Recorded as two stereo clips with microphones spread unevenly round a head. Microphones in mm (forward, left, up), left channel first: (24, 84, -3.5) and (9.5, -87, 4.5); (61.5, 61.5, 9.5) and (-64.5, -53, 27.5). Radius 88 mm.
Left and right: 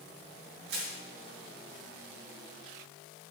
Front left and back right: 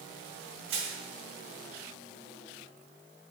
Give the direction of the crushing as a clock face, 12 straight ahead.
4 o'clock.